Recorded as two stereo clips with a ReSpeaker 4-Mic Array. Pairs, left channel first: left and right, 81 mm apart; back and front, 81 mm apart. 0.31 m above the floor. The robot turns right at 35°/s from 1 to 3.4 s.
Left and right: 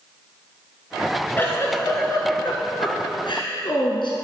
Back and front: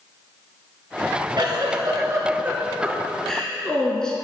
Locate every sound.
1.4 s a giggle: 25° left, 2.0 m; by 4.1 s 100° left, 2.0 m